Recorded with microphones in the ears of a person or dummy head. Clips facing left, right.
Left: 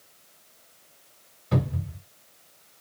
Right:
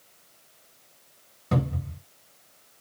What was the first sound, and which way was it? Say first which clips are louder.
A cupboard door: even; 55° right (ahead or behind).